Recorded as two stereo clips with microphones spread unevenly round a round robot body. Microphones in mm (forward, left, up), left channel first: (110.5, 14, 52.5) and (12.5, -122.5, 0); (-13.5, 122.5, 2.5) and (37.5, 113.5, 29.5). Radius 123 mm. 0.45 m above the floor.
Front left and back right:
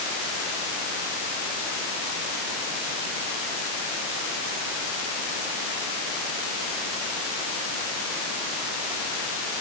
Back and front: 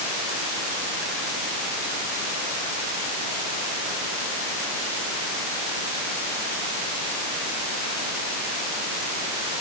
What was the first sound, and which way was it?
Only background noise.